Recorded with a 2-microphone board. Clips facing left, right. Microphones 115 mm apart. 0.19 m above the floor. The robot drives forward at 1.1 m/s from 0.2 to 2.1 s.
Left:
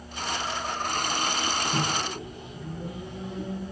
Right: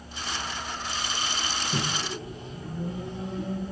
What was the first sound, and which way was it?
A microwave, 35° right (ahead or behind).